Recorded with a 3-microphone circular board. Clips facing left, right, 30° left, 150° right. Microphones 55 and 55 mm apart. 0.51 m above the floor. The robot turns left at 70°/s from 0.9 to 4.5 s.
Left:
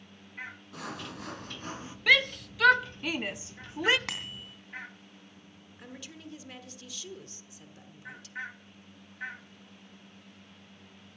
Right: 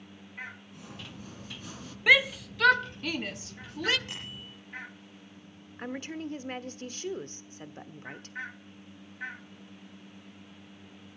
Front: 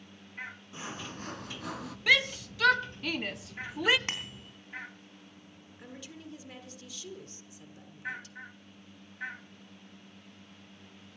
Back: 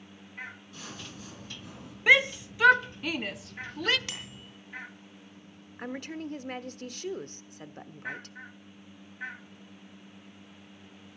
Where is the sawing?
95° left, 1.1 m; by 2.0 s 20° left, 1.1 m.